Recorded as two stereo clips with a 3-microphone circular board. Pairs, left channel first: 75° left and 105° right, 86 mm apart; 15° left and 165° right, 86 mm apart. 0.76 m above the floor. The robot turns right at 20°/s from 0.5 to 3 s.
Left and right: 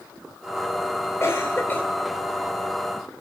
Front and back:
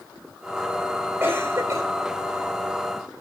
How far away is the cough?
About 2.5 m.